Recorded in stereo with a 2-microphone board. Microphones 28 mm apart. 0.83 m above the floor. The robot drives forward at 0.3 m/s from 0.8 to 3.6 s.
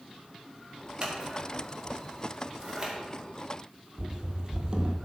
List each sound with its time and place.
1.0 s scissors: 40° right (ahead or behind), 1.4 m; by 2.9 s 30° right (ahead or behind), 1.8 m
4.0 s running footsteps: 35° right (ahead or behind), 1.0 m